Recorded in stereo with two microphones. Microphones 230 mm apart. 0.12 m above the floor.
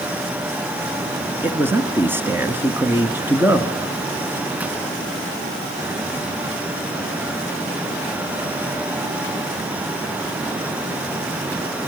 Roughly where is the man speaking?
Centre.